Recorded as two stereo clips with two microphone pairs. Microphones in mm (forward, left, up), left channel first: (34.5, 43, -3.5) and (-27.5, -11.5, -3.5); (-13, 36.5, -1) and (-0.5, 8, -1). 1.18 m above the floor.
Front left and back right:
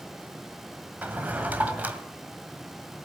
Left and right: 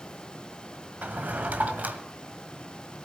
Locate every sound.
1.0 s a drawer: 70° right, 1.6 m